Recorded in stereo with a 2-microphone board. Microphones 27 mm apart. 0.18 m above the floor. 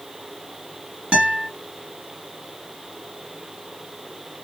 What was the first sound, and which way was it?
A guitar, 50° right (ahead or behind).